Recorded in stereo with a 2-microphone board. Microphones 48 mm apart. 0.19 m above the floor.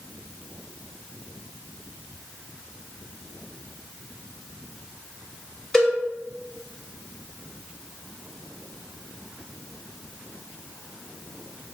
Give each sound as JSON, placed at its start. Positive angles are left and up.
{"t": 5.7, "sound": "a cowbell", "side_deg": 10, "distance_m": 1.3}